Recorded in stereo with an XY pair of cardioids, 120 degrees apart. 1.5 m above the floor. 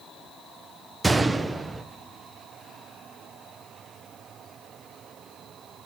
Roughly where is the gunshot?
Ahead.